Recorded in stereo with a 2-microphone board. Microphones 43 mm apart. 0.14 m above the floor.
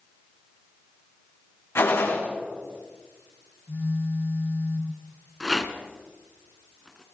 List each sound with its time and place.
1.8 s a gunshot: 70° left (ahead or behind), 3.5 m
3.7 s a phone buzzing: 70° left (ahead or behind), 4 m
5.4 s a rattle: 5° left (ahead or behind), 1.3 m